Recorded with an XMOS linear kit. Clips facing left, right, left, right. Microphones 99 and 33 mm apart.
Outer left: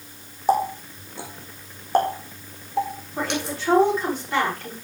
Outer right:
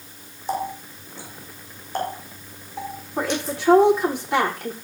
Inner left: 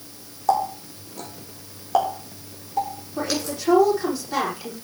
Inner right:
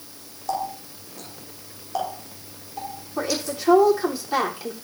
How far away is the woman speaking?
About 7.5 m.